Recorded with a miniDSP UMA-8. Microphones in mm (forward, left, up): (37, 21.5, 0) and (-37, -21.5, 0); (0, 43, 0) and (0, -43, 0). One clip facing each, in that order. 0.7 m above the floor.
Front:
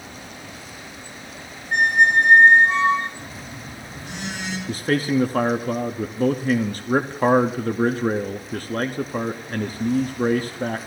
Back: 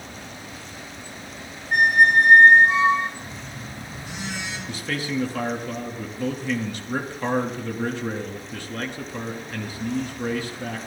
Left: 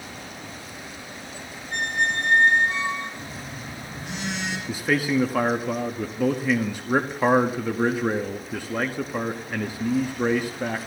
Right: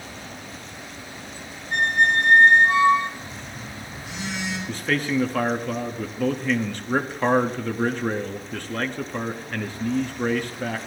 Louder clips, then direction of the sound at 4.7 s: Front 8 dB, left 2 dB; 15° left.